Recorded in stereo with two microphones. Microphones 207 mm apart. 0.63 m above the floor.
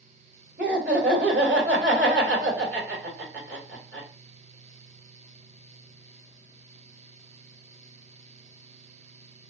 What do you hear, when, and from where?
0.6 s laughter: 55° right (ahead or behind), 3 m